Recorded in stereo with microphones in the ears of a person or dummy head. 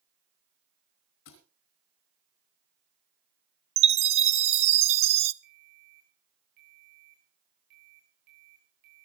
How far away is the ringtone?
About 8.5 m.